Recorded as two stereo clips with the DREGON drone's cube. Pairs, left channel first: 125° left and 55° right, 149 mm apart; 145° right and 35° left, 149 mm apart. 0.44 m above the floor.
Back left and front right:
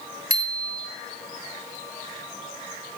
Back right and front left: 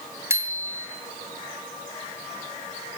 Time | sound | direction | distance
0.3 | a bicycle bell | 40° right | 2.5 m